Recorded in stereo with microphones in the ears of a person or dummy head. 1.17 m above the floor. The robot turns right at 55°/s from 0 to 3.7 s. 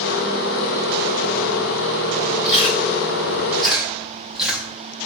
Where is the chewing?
25° left (ahead or behind), 0.6 m; by 4.7 s centre (ahead or behind), 0.6 m.